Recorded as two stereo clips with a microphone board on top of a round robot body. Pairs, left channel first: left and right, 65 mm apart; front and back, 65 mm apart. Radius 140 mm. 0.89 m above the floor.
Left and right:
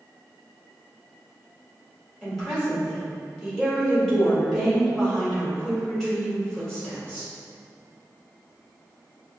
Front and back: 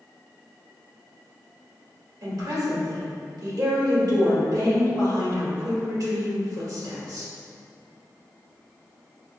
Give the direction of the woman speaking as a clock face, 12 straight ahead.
6 o'clock.